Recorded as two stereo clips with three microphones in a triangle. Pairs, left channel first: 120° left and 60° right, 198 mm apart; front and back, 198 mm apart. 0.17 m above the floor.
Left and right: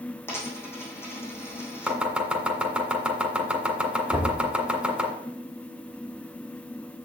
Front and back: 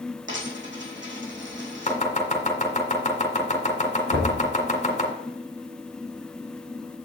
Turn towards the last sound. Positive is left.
turn(degrees=-150)